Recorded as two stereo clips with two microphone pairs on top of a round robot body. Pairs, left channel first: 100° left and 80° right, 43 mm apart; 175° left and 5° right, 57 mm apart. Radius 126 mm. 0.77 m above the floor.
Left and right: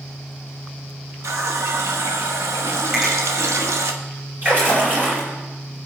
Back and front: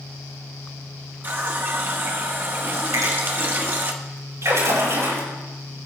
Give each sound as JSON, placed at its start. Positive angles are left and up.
{"t": 1.2, "sound": "a running tap", "azimuth_deg": -60, "distance_m": 0.9}
{"t": 2.9, "sound": "a finger snap", "azimuth_deg": -5, "distance_m": 5.5}
{"t": 4.4, "sound": "a splash", "azimuth_deg": -30, "distance_m": 5.0}